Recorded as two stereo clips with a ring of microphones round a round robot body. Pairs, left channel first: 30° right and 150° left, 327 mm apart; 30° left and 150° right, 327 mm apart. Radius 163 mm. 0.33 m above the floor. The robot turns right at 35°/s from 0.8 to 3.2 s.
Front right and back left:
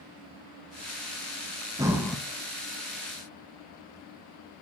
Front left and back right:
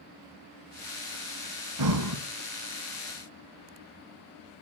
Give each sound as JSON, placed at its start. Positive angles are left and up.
{"t": 1.8, "sound": "breathing", "azimuth_deg": -130, "distance_m": 1.5}